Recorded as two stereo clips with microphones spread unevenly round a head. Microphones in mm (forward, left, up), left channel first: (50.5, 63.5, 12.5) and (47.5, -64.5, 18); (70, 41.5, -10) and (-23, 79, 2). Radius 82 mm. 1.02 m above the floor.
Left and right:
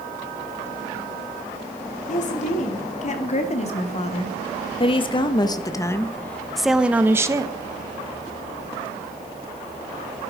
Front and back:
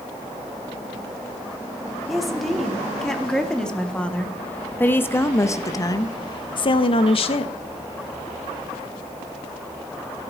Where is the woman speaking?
70° left, 3 m; by 7.5 s 30° right, 1.3 m.